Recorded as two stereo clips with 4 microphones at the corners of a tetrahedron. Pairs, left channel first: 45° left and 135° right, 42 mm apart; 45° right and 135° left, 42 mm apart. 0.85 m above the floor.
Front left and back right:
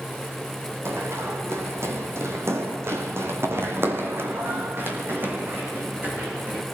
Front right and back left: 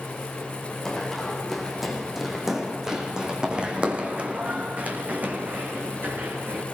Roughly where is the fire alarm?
No fire alarm in this recording.